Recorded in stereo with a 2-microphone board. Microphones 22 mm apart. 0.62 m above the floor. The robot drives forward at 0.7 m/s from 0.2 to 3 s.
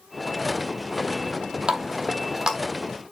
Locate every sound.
1.7 s a running tap: 40° right (ahead or behind), 0.7 m; by 2.6 s 25° right (ahead or behind), 1.2 m